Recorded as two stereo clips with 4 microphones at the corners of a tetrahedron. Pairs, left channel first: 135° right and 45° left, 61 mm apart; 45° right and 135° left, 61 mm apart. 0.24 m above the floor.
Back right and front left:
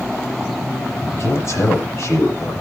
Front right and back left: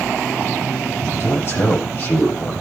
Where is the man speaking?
95° right, 8.5 m.